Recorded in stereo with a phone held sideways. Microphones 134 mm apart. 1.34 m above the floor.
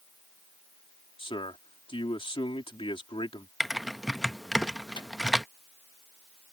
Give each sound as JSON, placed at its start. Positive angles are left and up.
{"t": 1.2, "sound": "a man speaking", "side_deg": 40}
{"t": 3.6, "sound": "typing on a keyboard", "side_deg": 0}
{"t": 5.0, "sound": "a microwave", "side_deg": 35}